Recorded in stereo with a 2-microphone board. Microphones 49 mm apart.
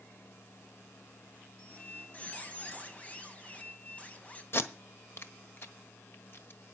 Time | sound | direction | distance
1.6 | a squeak | 25° left (ahead or behind) | 2.0 m
4.5 | tape being pulled | 50° left (ahead or behind) | 1.3 m